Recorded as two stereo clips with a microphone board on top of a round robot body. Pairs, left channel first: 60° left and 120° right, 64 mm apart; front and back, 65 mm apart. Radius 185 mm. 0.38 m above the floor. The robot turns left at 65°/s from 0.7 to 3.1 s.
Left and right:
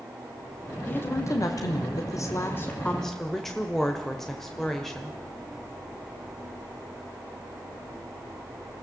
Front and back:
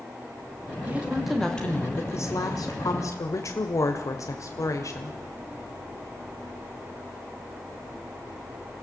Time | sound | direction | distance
0.9 | a woman speaking | 120° left | 1.8 m